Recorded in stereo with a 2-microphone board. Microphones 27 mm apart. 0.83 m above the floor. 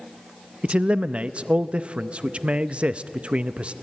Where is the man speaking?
45° right (ahead or behind), 0.5 m.